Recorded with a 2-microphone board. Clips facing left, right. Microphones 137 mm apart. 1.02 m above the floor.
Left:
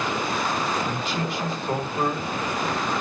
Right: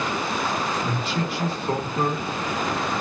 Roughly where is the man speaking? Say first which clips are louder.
Right 1 dB; right.